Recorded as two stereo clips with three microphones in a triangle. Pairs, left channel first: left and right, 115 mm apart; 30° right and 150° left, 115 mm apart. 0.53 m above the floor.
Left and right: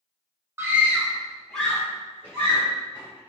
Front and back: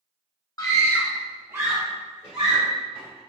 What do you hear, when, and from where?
0.6 s a scream: 45° right, 1.1 m; by 3.2 s 150° left, 2.5 m